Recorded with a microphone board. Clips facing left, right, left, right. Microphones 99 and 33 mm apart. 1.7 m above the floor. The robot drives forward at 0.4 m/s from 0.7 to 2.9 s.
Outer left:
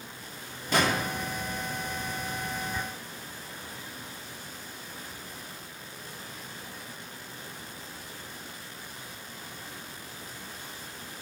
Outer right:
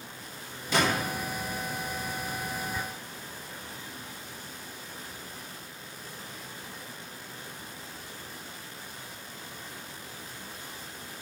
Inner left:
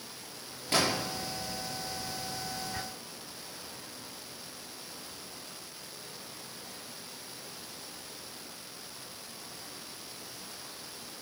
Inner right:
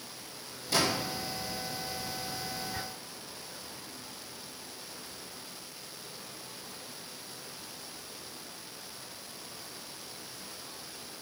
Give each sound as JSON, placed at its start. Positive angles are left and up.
{"t": 0.7, "sound": "a gunshot", "side_deg": 50, "distance_m": 4.5}